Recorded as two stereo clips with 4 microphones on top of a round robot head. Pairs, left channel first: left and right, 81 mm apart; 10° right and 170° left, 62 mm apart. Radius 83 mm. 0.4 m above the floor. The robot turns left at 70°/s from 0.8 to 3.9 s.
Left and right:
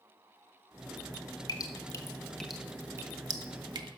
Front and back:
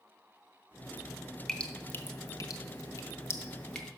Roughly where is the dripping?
Left.